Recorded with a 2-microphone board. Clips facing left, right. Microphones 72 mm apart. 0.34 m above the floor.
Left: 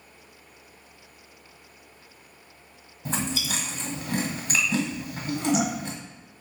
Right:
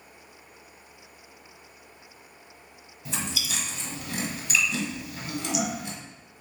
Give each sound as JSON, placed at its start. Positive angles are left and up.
{"t": 3.0, "sound": "chewing", "side_deg": 40, "distance_m": 1.0}